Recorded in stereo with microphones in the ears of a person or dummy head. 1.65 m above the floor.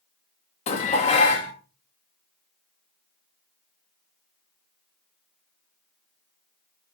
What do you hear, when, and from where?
0.7 s dishes clattering: 35° left (ahead or behind), 1.6 m